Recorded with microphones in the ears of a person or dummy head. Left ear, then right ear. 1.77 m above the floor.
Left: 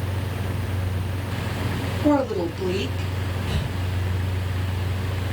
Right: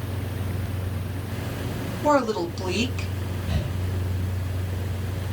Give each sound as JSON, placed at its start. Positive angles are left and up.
{"t": 2.0, "sound": "a woman speaking", "side_deg": -70, "distance_m": 2.0}
{"t": 3.5, "sound": "breathing", "side_deg": 40, "distance_m": 1.3}